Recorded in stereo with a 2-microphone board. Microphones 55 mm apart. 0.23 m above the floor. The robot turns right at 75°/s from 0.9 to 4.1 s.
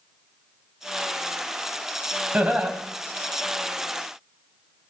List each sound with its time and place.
2.3 s laughter: 25° right (ahead or behind), 1.4 m